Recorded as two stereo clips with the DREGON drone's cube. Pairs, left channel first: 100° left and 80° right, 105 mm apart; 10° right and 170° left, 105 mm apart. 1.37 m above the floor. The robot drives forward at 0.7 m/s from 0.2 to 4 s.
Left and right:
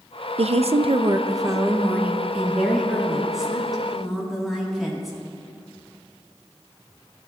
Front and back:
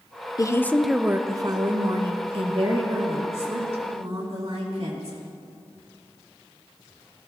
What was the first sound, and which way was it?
A woman speaking, 65° right.